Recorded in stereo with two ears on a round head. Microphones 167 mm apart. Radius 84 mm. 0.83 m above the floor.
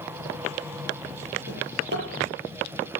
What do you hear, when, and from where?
1.5 s a drawer: 60° right (ahead or behind), 7.5 m